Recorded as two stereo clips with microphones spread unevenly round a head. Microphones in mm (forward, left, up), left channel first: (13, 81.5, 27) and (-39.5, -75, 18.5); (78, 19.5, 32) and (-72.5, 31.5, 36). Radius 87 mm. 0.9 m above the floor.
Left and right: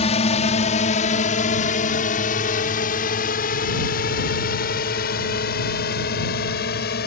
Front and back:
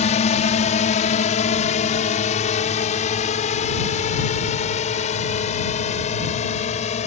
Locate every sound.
0.0 s a drone: 25° left; by 7.1 s 40° left